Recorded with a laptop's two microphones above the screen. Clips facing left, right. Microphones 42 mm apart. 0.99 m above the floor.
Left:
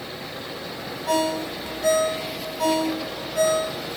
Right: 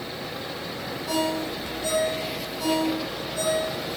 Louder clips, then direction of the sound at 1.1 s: Left 3 dB; 65° left (ahead or behind).